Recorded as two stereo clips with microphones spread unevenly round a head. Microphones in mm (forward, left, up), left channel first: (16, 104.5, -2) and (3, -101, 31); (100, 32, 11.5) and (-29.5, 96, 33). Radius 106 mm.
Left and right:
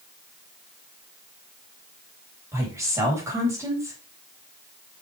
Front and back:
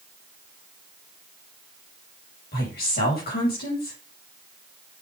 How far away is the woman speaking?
About 4 m.